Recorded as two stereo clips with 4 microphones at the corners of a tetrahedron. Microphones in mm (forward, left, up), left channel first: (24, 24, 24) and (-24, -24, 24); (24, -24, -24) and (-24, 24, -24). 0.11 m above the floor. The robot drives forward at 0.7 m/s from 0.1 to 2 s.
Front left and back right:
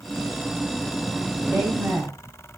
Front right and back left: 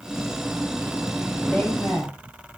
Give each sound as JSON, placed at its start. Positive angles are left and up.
{"t": 1.5, "sound": "a woman speaking", "azimuth_deg": -95, "distance_m": 2.0}